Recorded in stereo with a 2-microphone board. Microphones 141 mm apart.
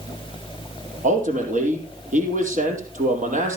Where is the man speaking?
65° right (ahead or behind), 4 m.